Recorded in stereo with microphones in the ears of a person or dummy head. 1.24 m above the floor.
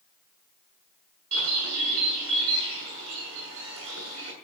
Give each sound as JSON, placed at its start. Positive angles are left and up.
{"t": 1.3, "sound": "a bird", "side_deg": -85, "distance_m": 6.5}